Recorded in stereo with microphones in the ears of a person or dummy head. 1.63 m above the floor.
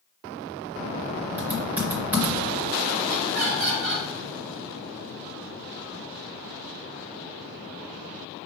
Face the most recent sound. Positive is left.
turn(degrees=-70)  # may be behind; listen again after turning